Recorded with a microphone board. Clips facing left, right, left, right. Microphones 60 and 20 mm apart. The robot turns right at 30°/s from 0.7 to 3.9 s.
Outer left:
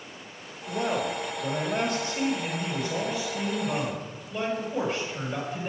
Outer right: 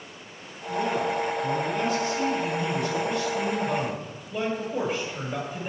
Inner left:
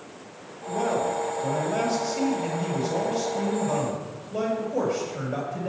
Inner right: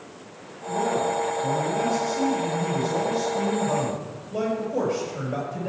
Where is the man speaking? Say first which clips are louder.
Outer right 2 dB, inner right 1 dB; 95° left, 5 m; by 5.7 s 170° right, 5 m.